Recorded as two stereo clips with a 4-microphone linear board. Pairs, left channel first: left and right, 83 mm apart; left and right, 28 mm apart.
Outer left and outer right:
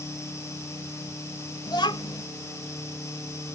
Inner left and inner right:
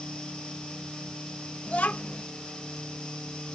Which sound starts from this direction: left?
A child speaking, at 1.7 s.